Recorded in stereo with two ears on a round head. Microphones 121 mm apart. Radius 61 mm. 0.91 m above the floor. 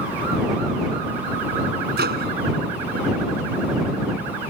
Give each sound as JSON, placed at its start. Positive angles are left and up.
{"t": 2.0, "sound": "a microwave", "side_deg": -90}